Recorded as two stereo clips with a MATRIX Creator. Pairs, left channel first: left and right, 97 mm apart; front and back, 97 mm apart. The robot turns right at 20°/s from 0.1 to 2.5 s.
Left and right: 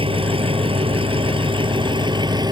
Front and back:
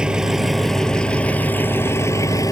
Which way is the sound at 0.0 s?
100° right.